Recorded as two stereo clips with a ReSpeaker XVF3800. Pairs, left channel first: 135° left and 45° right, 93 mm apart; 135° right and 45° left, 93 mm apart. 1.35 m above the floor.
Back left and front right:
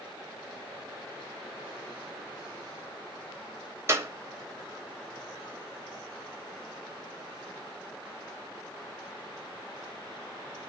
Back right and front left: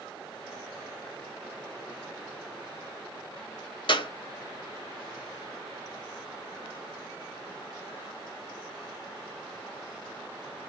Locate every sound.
3.9 s a clap: 105° right, 1.3 m